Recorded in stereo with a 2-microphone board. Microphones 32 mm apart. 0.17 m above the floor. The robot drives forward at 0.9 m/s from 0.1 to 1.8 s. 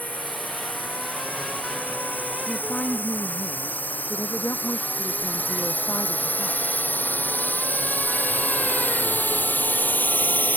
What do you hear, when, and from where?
0.0 s a drone: 65° left (ahead or behind); by 10.6 s 75° left (ahead or behind)
2.5 s a woman speaking: 85° left